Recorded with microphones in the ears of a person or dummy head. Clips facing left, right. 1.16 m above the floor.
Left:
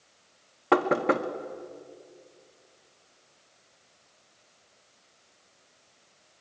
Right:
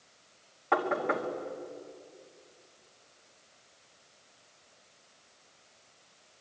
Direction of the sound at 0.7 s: 55° left (ahead or behind).